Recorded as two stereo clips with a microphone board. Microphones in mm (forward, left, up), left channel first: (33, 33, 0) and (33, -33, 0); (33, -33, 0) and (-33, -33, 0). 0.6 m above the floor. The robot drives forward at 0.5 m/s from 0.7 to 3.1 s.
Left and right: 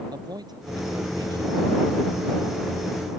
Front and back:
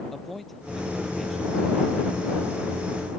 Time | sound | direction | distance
0.1 | a man speaking | 90° right | ?